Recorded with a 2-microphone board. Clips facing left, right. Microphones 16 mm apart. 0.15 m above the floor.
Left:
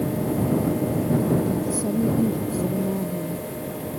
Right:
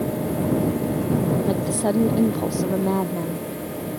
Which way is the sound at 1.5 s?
75° right (ahead or behind).